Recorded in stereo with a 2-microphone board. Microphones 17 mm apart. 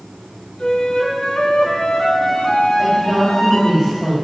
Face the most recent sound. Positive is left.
turn(degrees=-10)  # may be behind; listen again after turning